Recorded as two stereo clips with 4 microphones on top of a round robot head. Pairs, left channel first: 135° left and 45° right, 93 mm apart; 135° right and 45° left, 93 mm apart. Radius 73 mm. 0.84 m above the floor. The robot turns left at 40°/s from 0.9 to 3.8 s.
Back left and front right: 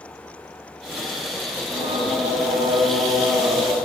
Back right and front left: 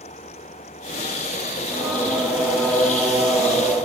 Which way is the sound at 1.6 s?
15° right.